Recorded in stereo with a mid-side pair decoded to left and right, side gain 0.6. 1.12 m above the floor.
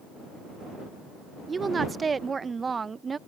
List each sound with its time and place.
1.5 s a woman speaking: 25° right